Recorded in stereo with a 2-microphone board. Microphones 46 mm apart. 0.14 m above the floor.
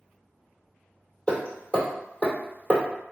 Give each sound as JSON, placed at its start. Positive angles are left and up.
{"t": 1.3, "sound": "hammering", "side_deg": 25, "distance_m": 1.8}